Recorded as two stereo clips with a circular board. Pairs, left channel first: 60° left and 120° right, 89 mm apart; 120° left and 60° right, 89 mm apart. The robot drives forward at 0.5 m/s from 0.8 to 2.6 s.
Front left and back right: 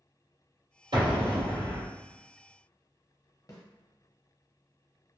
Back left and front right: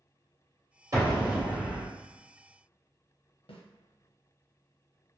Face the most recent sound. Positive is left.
turn(degrees=110)